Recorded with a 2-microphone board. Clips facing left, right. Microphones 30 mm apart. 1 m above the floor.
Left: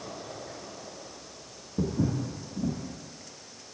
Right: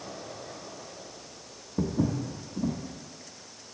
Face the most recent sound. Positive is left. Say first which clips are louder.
# right 1 dB
turn(degrees=-25)  # may be behind; listen again after turning